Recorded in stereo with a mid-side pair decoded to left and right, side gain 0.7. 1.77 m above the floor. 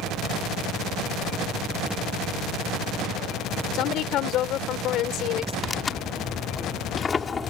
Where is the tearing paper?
25° left.